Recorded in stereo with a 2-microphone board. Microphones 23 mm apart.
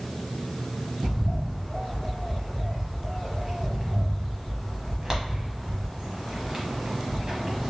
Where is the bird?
30° right (ahead or behind), 1.0 m.